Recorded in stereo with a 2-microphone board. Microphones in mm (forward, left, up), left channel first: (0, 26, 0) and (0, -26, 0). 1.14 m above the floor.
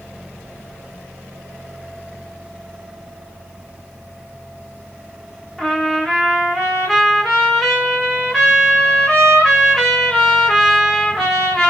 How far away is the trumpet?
About 2.5 m.